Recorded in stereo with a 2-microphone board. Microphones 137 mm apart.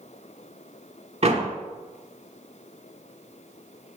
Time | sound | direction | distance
1.2 | a door slam | 50° right (ahead or behind) | 1.0 m